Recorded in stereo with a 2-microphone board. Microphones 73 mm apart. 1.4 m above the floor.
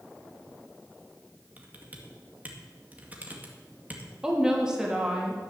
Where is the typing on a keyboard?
25° right (ahead or behind), 1.8 m.